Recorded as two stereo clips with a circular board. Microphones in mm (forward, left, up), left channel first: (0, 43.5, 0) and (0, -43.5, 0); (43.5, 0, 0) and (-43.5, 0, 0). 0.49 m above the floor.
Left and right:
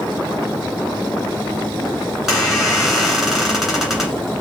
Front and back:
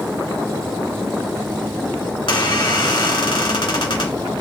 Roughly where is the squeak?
Ahead.